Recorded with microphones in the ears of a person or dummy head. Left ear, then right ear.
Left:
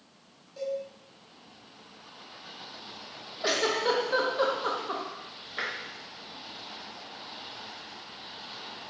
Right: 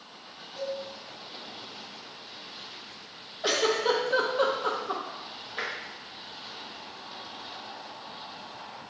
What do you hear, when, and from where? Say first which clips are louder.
0.6 s a cowbell: left 1 dB; 5° left (ahead or behind), 1.2 m
3.4 s a giggle: right 1 dB; 5° left (ahead or behind), 0.5 m
5.6 s tapping: even; 5° right (ahead or behind), 0.7 m